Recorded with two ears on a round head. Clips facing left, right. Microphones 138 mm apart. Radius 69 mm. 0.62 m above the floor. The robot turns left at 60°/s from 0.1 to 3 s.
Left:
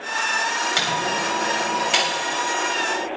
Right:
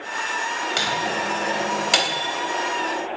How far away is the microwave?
About 3.5 m.